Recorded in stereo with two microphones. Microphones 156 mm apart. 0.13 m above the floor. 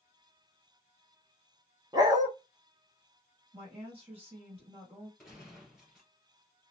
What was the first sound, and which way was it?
A dog barking, 25° right (ahead or behind).